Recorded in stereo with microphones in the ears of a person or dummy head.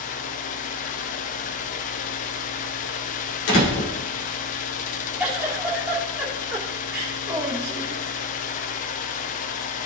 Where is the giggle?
10° right (ahead or behind), 2 m.